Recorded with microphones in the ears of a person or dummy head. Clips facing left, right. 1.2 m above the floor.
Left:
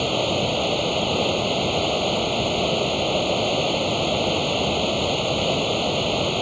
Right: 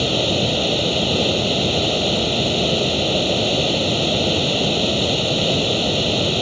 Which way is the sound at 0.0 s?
15° right (ahead or behind).